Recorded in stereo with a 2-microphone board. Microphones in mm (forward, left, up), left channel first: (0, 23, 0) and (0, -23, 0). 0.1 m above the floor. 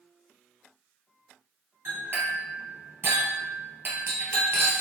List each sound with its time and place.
1.9 s a clink: 50° right (ahead or behind), 1.4 m